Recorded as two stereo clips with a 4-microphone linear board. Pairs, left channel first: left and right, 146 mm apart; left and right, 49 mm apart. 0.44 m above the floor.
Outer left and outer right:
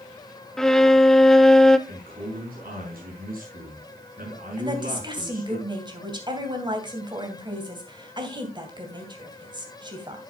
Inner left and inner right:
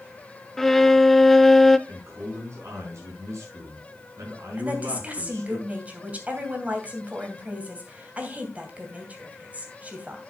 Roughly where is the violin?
Centre.